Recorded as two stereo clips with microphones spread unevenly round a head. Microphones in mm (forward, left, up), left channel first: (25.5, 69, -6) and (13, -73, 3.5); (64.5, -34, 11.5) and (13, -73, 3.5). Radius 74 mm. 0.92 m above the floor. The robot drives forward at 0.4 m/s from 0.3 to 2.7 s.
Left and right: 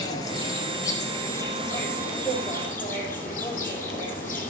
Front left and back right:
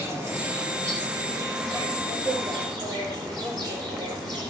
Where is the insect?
150° left, 1.4 m; by 4.5 s 165° left, 2 m.